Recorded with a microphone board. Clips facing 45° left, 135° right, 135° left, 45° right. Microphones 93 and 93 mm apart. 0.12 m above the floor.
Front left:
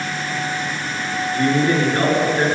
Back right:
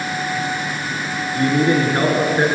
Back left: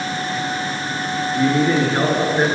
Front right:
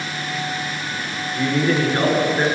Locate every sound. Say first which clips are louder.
1.4 s a man speaking: back right 1 dB, back left 2 dB; 175° right, 1.5 m